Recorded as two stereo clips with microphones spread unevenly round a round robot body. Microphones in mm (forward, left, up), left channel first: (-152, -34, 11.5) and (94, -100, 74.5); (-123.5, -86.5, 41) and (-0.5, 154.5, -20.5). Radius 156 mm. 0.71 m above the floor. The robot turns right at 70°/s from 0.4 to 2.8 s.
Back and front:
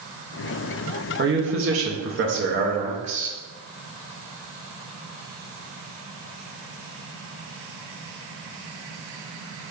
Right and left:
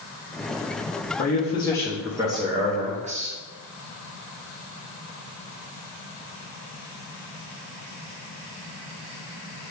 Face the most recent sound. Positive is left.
turn(degrees=50)